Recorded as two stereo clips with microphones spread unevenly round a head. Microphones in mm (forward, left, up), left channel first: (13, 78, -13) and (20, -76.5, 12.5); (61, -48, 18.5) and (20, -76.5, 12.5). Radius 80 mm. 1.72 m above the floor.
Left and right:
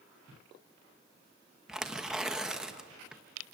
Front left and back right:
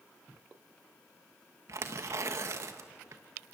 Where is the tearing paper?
165° right, 1.1 m.